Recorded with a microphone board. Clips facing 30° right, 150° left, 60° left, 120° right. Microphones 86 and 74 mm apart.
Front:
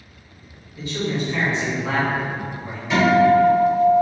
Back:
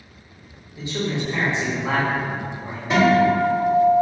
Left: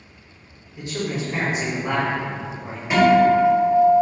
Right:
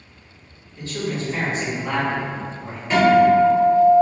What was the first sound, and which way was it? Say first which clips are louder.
A man speaking: front 1 dB, even; 110° left.